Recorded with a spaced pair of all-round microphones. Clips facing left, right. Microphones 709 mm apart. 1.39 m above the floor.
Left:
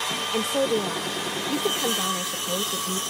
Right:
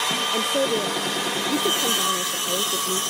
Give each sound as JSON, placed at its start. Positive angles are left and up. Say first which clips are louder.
{"t": 0.3, "sound": "a woman speaking", "louder": "even", "side_deg": 30}